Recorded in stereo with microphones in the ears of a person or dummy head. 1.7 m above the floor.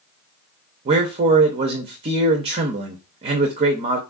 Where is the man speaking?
30° right (ahead or behind), 0.5 m.